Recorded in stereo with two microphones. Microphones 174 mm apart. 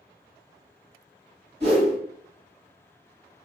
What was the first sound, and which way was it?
A whoosh, 65° right (ahead or behind).